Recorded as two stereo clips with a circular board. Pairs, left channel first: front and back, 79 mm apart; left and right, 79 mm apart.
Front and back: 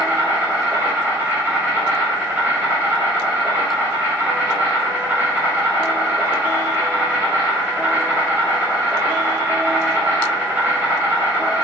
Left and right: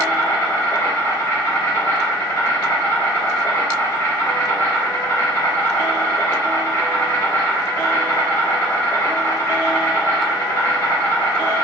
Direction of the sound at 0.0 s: 130° left.